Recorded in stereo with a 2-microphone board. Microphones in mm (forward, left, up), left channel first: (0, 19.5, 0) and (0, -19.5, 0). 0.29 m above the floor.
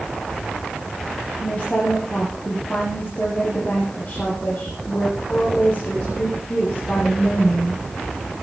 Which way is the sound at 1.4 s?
40° left (ahead or behind).